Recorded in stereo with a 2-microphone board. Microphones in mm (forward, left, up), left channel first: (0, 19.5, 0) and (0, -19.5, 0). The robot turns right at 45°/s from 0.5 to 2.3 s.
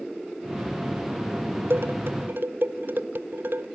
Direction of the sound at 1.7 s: 70° right (ahead or behind).